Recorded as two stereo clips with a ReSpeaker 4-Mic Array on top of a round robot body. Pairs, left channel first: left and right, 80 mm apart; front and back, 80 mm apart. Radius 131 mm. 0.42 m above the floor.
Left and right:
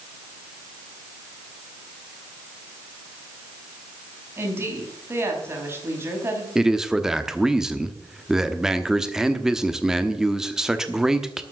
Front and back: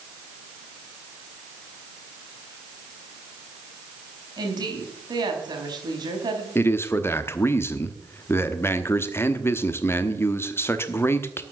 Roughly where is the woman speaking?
Behind right.